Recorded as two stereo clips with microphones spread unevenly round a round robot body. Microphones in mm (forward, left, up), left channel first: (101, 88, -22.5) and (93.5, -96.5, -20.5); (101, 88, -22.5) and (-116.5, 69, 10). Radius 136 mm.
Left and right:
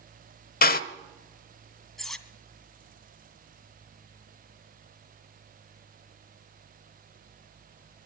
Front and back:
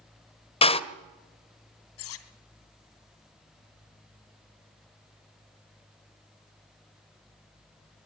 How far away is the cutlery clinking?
About 2.5 m.